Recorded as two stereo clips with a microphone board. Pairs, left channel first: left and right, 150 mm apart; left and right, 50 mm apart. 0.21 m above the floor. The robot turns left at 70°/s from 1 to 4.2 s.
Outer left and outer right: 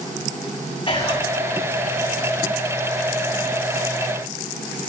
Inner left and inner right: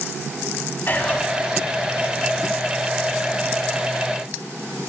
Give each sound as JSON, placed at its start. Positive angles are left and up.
{"t": 0.9, "sound": "whispering", "side_deg": 35, "distance_m": 1.2}